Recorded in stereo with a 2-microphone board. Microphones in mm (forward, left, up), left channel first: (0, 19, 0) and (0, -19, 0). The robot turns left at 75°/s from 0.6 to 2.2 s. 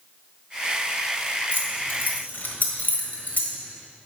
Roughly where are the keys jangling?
Left.